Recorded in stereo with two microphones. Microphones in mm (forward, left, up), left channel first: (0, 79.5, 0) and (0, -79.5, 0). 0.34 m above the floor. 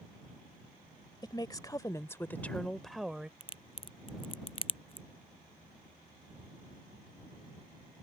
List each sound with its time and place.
1.2 s a woman speaking: 25° left (ahead or behind); by 3.3 s 5° right (ahead or behind)
3.4 s a crack: 35° left (ahead or behind)